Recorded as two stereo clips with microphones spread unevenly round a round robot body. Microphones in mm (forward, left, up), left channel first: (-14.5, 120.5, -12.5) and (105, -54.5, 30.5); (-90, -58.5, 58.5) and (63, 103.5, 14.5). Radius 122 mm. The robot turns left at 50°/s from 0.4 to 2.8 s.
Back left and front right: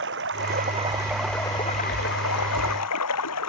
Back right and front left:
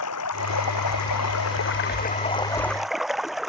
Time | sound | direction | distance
0.0 | running water | 105° right | ?